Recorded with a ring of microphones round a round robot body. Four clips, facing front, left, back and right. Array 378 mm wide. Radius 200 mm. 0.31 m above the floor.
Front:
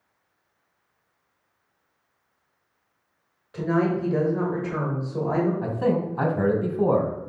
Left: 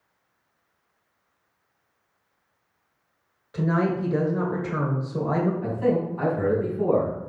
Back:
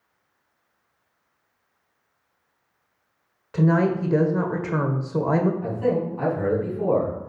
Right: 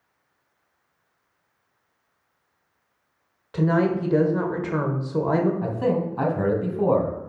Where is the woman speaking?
145° right, 1.4 m.